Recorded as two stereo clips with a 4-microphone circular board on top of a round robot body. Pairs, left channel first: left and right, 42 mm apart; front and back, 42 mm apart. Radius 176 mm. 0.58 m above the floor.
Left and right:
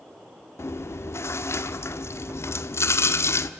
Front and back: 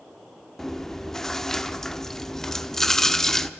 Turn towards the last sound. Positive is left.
turn(degrees=80)